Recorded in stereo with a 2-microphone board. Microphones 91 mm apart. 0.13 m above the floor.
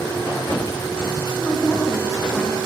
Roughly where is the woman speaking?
Left.